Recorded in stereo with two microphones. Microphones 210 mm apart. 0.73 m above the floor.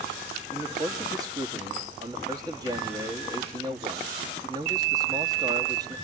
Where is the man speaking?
15° right (ahead or behind), 1.3 m.